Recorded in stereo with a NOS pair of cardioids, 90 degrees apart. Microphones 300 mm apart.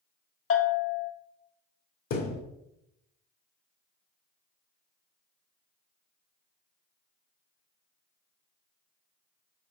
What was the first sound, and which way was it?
A bell, 45° left.